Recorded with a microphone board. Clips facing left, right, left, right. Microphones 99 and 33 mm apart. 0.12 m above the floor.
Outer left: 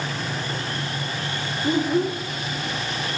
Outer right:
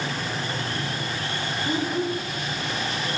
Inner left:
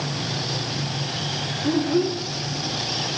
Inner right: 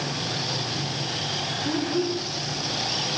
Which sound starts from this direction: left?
A child speaking, at 1.6 s.